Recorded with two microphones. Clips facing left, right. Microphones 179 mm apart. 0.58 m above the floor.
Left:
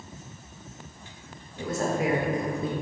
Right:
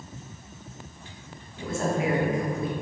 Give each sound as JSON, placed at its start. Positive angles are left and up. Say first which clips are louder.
{"t": 1.6, "sound": "a woman speaking", "louder": "even", "side_deg": 40, "distance_m": 1.9}